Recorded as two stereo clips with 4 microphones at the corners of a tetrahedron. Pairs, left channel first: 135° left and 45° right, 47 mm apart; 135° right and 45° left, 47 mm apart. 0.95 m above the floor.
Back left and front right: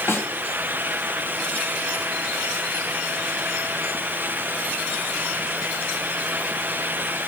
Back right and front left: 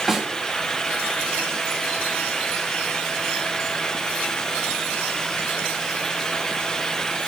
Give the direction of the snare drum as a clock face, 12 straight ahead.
8 o'clock.